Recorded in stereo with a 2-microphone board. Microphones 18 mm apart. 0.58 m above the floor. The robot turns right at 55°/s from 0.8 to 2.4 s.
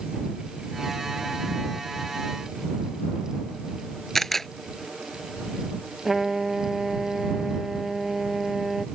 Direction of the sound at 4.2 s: 20° left (ahead or behind).